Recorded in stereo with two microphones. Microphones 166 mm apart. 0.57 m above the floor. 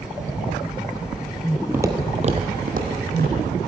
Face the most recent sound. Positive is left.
turn(degrees=-70)  # may be behind; listen again after turning